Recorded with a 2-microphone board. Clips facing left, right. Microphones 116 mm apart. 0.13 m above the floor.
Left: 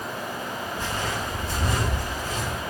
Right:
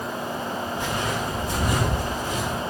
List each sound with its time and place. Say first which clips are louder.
0.8 s footsteps: right 1 dB; 15° right (ahead or behind), 3.5 m; by 2.6 s 10° right (ahead or behind), 5 m